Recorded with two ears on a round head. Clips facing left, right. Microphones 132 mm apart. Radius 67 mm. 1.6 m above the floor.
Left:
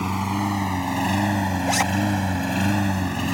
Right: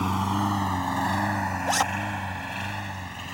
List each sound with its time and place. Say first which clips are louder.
0.0 s a lawn mower: left 1 dB; 5° left (ahead or behind); by 3.3 s 70° left (ahead or behind)
1.7 s a zipper: left 1 dB; 10° left (ahead or behind)